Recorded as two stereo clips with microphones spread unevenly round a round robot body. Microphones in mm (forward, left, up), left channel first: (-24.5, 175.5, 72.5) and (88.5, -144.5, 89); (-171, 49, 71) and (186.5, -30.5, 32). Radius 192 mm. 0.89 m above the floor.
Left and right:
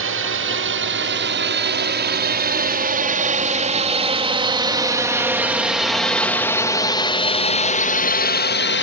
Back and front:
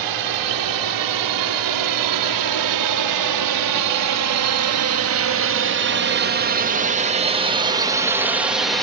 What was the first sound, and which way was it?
A drone, 20° right.